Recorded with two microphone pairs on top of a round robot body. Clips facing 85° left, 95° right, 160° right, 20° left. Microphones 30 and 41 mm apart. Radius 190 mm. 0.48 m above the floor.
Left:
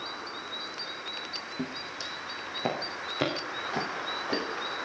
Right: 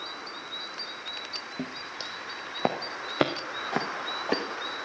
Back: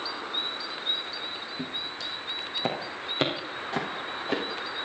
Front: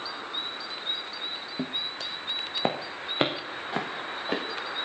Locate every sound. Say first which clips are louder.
1.6 s footsteps: even, front 4 dB; 25° right, 1.6 m; by 4.4 s 65° right, 3.5 m